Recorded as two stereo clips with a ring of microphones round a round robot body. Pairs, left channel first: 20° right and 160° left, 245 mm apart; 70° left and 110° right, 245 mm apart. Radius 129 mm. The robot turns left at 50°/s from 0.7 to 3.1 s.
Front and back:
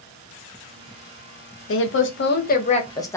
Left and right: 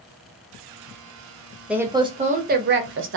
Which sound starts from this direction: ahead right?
A woman speaking, at 1.7 s.